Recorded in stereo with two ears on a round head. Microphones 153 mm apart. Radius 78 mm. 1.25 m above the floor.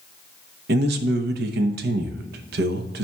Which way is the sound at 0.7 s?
65° right (ahead or behind).